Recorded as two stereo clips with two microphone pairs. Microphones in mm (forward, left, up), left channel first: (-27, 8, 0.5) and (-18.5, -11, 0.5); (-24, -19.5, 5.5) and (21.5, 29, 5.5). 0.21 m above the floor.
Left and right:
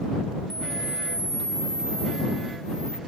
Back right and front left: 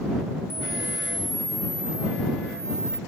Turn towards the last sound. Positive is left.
turn(degrees=60)